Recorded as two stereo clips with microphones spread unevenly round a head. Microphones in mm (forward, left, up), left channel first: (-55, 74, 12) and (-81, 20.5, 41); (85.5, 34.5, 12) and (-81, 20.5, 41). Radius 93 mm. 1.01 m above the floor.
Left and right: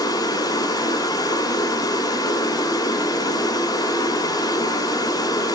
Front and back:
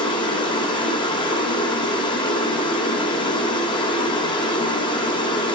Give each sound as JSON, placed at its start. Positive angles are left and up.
{"t": 0.0, "sound": "running water", "azimuth_deg": 70, "distance_m": 3.0}